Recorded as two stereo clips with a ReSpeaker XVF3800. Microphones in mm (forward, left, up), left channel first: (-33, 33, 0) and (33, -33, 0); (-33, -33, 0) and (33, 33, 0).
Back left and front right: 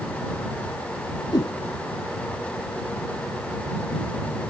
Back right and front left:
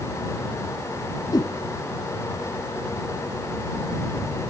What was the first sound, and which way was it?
A whoosh, straight behind.